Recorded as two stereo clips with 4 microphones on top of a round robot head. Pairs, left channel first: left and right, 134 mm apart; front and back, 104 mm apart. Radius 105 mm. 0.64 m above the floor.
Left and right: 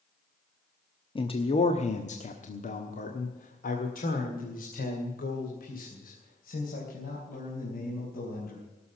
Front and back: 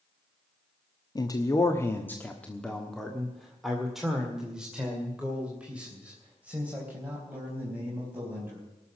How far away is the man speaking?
About 1.1 m.